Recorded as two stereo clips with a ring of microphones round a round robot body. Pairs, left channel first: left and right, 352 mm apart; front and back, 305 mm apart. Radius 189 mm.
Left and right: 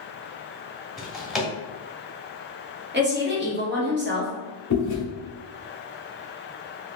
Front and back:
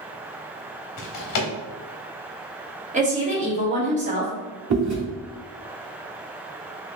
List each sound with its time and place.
1.0 s a drawer: straight ahead, 0.9 m
2.9 s a woman speaking: 130° right, 1.2 m
4.7 s chewing: 145° left, 1.4 m